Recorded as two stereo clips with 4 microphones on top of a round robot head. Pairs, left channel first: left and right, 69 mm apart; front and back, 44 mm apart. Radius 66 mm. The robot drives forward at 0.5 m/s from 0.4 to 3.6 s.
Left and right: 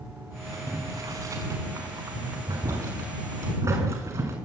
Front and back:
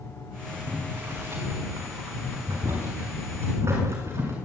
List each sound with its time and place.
0.5 s boiling: 130° right, 6.5 m; by 4.3 s 140° right, 7.5 m